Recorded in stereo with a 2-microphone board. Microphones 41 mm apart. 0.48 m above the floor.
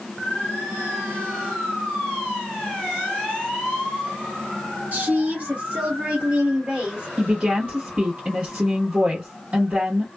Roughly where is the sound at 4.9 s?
Right.